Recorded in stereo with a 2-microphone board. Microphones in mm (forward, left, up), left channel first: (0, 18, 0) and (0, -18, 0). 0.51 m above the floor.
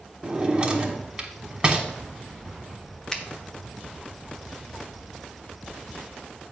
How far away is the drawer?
About 1.1 m.